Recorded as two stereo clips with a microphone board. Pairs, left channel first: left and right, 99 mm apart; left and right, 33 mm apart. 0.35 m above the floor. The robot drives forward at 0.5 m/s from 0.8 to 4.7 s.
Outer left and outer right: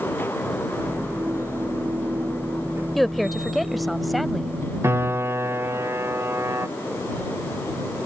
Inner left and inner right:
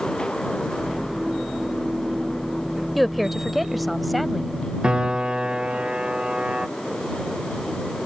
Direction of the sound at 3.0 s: Centre (ahead or behind).